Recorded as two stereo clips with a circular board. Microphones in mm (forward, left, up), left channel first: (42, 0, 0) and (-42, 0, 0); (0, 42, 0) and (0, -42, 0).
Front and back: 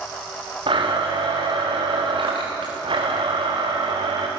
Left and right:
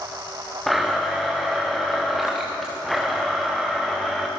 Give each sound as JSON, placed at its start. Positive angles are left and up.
{"t": 0.7, "sound": "a blender", "azimuth_deg": 180, "distance_m": 4.5}